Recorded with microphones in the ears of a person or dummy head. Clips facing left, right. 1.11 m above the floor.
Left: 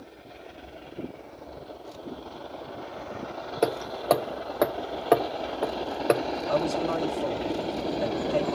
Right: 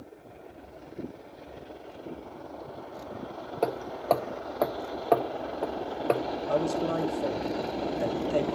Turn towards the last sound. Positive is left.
turn(degrees=-25)  # may be behind; listen again after turning